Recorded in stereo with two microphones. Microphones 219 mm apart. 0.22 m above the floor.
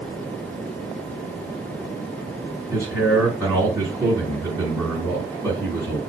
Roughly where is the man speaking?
Centre.